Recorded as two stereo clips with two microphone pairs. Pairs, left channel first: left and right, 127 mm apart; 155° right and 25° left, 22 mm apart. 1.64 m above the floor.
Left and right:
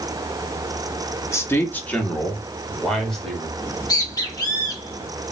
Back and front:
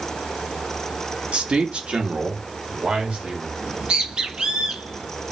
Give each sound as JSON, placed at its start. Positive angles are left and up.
{"t": 1.3, "sound": "a man speaking", "azimuth_deg": 20, "distance_m": 1.0}
{"t": 3.6, "sound": "a bird", "azimuth_deg": 35, "distance_m": 1.3}